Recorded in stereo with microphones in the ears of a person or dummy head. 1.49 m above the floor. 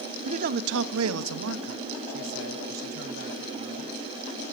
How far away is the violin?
No violin in this recording.